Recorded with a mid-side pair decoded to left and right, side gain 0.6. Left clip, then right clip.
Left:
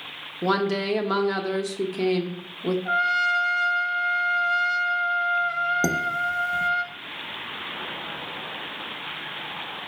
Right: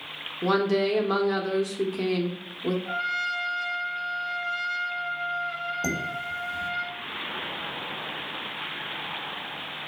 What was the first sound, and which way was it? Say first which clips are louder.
A woman speaking: even; 15° left.